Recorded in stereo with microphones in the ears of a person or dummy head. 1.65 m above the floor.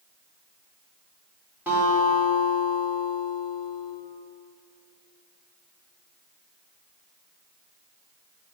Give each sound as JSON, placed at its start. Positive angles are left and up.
{"t": 1.7, "sound": "a guitar", "side_deg": -15, "distance_m": 2.5}